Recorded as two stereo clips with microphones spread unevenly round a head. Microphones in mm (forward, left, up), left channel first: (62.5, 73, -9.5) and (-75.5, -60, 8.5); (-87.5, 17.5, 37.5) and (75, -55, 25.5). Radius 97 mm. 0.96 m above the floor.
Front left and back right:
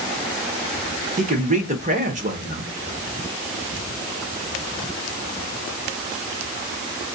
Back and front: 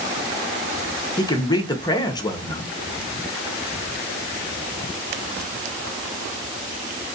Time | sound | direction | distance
1.2 | a man speaking | 155° right | 0.8 m